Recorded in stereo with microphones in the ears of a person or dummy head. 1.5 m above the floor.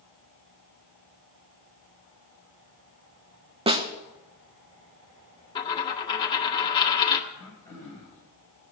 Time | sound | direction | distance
3.7 | a snare drum | 25° right (ahead or behind) | 1.3 m
5.5 | a dropped coin | 25° left (ahead or behind) | 1.5 m
7.3 | throat clearing | 15° left (ahead or behind) | 7 m